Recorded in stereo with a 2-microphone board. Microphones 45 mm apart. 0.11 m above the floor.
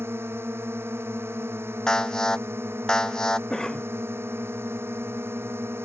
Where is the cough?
10° left (ahead or behind).